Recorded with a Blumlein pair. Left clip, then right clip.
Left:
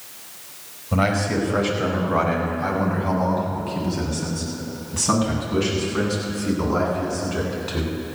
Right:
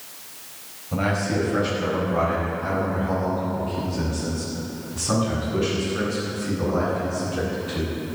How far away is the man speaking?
About 5 m.